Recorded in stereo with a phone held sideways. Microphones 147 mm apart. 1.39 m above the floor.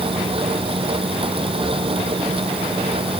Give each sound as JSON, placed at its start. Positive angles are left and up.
{"t": 0.0, "sound": "a fan", "side_deg": -40}